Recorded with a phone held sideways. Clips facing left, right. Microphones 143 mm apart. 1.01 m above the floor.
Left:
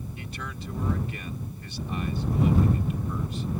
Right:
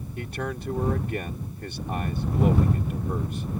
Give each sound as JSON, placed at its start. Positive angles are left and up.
{"t": 0.2, "sound": "a man speaking", "side_deg": -55}